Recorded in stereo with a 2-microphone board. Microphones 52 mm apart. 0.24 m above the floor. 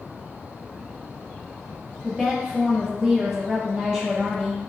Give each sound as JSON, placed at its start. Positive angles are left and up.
{"t": 2.0, "sound": "a woman speaking", "side_deg": -15, "distance_m": 0.9}